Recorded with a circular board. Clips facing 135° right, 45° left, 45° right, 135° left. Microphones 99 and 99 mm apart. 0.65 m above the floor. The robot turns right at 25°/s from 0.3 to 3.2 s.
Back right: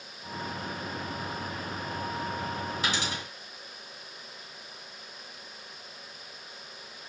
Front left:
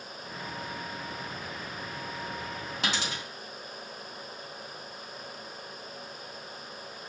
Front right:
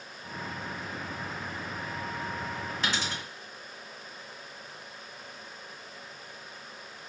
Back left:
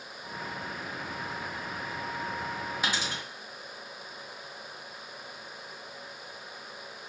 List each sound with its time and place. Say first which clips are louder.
2.8 s a dropped coin: front left 2 dB, front right 1 dB; 55° left, 0.9 m; by 3.2 s 65° left, 0.9 m